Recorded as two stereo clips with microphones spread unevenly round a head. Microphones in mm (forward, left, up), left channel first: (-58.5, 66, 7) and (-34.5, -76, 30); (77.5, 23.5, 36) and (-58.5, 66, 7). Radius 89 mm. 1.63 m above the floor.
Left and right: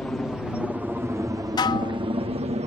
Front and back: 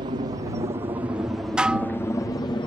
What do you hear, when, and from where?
0.0 s a helicopter: straight behind; by 2.7 s 70° right
1.6 s dishes clattering: 55° left